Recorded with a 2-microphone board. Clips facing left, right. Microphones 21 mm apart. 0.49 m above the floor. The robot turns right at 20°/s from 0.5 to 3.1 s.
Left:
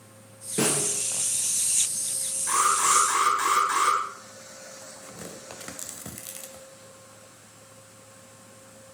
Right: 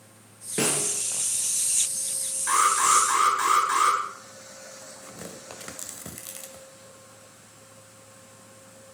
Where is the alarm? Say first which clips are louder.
Right 2 dB; 40° right (ahead or behind), 6 m; by 4.0 s 25° right (ahead or behind), 6 m.